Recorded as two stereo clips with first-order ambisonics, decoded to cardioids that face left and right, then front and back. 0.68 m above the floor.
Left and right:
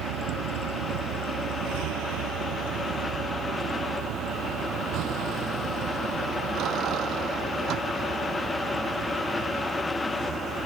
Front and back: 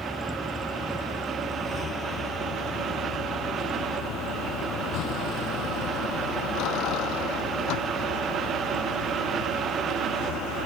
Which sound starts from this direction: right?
A vehicle, at 0.0 s.